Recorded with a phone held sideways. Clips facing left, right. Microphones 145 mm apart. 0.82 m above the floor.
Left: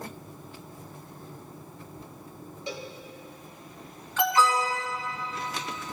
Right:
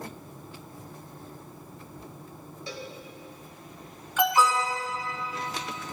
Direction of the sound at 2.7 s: 20° left (ahead or behind).